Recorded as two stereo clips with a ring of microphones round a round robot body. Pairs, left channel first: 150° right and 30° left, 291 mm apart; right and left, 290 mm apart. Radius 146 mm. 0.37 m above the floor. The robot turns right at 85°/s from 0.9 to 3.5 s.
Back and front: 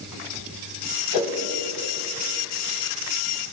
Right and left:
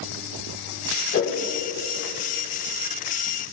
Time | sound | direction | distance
1.1 | a whoosh | 145° right | 1.6 m